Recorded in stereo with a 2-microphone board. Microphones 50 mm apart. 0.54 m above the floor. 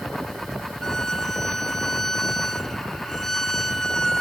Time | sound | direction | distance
0.8 | a violin | 5° left (ahead or behind) | 0.8 m